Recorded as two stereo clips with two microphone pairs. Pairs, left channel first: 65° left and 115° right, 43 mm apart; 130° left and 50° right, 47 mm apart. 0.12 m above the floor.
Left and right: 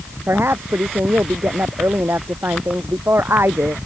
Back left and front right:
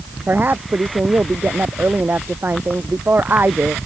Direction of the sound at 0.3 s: 90° right.